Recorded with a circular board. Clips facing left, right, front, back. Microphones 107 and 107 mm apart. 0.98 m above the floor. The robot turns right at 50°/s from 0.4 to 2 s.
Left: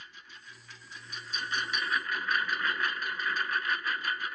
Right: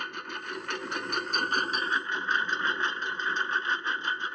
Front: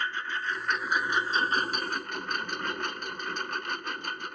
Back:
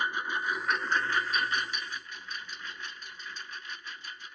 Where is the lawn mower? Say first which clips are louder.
Right 15 dB, back 1 dB; 105° right; by 4.3 s 25° right.